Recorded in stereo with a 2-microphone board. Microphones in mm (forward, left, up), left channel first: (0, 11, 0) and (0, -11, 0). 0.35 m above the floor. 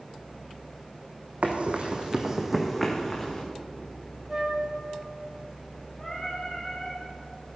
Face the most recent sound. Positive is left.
turn(degrees=10)  # may be behind; listen again after turning